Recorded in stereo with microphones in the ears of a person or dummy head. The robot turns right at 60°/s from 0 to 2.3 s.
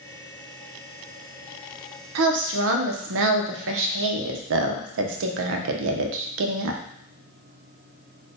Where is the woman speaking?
75° right (ahead or behind), 0.6 m; by 6.8 s 70° right (ahead or behind), 0.6 m.